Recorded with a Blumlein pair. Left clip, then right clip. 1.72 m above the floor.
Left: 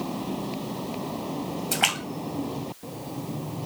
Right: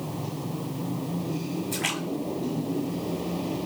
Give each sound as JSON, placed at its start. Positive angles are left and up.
{"t": 1.7, "sound": "a splash", "azimuth_deg": 50, "distance_m": 1.9}